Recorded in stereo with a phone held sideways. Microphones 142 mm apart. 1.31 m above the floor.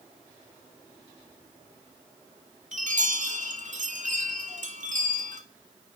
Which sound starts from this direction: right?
A chime, at 2.7 s.